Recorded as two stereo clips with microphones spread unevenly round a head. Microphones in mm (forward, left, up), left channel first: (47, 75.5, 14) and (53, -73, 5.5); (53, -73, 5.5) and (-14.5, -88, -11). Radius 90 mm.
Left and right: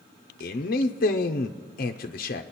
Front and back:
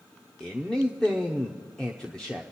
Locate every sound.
0.4 s a man speaking: 105° left, 0.6 m